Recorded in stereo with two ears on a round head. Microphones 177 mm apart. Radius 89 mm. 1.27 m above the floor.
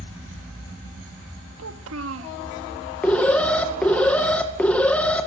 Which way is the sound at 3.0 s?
5° left (ahead or behind).